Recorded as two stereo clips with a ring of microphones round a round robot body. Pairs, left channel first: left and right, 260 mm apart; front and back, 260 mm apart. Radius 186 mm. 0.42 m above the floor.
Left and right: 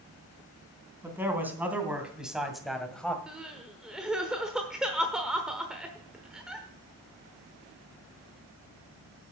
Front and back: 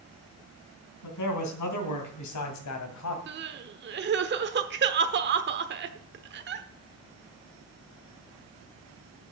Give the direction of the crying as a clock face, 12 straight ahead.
6 o'clock.